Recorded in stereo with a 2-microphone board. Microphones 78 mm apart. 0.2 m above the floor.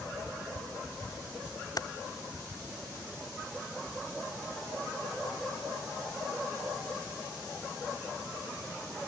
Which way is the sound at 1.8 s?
55° left (ahead or behind).